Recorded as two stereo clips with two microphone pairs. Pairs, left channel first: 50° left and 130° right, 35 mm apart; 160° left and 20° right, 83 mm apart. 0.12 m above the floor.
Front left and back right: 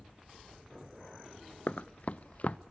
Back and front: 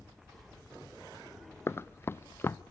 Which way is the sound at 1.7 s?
95° left.